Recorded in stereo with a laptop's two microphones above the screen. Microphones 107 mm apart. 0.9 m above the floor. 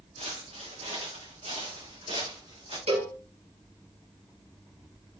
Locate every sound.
0.2 s footsteps: 75° right (ahead or behind), 4 m; by 2.8 s 60° right (ahead or behind), 5.5 m
2.9 s a cowbell: 65° right (ahead or behind), 5.5 m